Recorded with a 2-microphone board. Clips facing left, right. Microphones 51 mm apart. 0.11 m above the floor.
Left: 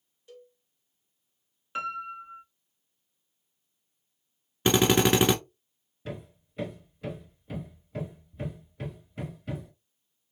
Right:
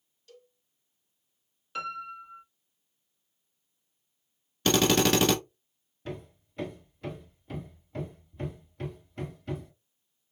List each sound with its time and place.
0.3 s a cowbell: 20° left (ahead or behind), 1.4 m
1.8 s a piano: 25° left (ahead or behind), 1.0 m
4.7 s a drill: 20° left (ahead or behind), 0.9 m
6.0 s hammering: 5° left (ahead or behind), 1.3 m